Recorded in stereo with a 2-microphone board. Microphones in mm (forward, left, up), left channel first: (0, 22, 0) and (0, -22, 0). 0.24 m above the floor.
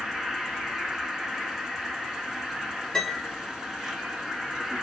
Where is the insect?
5° right (ahead or behind), 1.0 m.